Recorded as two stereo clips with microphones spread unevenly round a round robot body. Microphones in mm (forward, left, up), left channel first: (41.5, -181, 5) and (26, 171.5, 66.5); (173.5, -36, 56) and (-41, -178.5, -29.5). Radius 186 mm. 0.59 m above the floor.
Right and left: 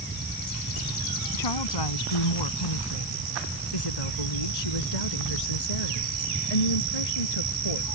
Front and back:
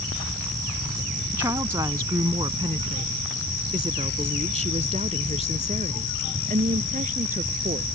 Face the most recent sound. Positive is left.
turn(degrees=-85)